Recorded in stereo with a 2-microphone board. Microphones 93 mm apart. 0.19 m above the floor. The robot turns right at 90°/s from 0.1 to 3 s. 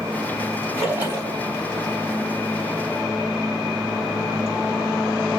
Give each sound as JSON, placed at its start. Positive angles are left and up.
{"t": 0.7, "sound": "a splash", "azimuth_deg": 175, "distance_m": 3.5}